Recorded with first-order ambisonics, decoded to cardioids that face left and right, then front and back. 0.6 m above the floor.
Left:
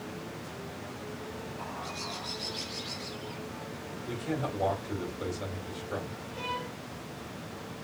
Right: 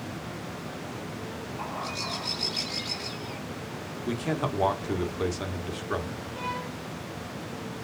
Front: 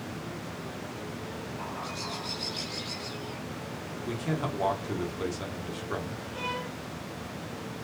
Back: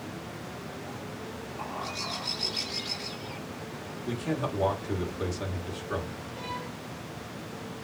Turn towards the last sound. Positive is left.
turn(degrees=-5)